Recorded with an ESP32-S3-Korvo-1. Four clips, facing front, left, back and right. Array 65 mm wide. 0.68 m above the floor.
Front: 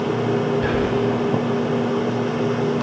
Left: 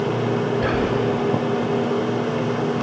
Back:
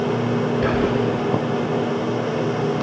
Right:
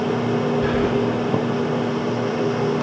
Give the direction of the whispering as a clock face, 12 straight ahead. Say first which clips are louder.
Right 1 dB, even; 7 o'clock.